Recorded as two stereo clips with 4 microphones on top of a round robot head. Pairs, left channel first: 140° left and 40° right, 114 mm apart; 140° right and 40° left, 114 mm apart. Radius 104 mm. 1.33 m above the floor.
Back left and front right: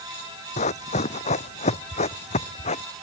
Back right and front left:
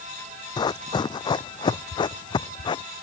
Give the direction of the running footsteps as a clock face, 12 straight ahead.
6 o'clock.